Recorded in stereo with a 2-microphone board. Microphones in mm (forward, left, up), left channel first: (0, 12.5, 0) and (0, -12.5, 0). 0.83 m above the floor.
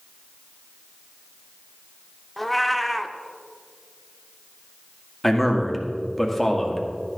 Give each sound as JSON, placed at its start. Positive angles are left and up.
{"t": 2.4, "sound": "a cat meowing", "side_deg": 0, "distance_m": 0.6}
{"t": 5.2, "sound": "a man speaking", "side_deg": 5, "distance_m": 1.8}